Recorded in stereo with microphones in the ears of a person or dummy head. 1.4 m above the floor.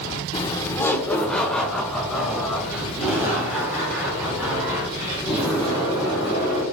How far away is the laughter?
About 0.9 m.